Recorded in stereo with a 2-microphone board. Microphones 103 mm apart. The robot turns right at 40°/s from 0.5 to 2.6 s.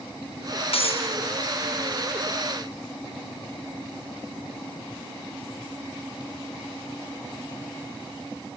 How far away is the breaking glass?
About 4.5 m.